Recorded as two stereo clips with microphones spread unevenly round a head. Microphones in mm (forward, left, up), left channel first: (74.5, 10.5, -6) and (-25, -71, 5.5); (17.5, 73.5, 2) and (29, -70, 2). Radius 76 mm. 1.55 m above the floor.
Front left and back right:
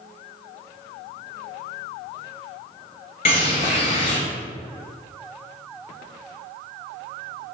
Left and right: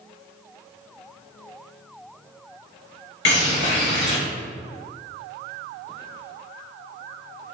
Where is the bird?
95° left, 1.3 m.